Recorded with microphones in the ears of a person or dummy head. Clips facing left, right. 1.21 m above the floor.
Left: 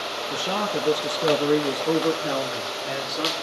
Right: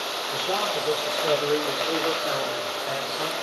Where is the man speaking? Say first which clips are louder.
Left 1 dB; 50° left (ahead or behind), 1.8 m; by 3.3 s 35° left (ahead or behind), 3 m.